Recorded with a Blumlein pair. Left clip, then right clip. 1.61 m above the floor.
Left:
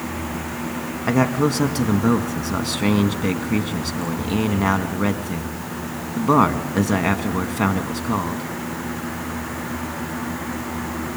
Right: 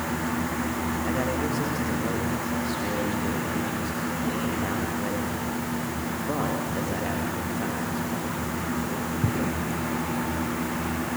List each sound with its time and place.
1.1 s a man speaking: 45° left, 2 m